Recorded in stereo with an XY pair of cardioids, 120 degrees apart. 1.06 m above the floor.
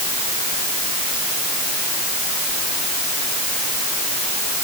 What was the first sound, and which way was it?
Only background noise.